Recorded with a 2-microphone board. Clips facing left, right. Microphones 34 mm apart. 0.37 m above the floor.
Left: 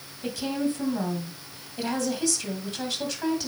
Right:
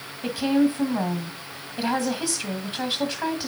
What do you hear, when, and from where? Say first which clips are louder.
0.2 s a woman speaking: right 7 dB; 20° right (ahead or behind), 2 m